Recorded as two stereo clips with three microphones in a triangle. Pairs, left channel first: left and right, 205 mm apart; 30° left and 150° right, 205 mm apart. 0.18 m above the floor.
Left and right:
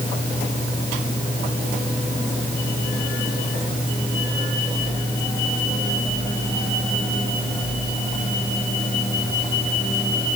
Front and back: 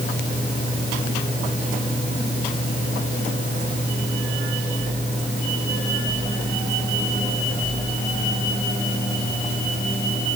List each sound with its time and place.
Only background noise.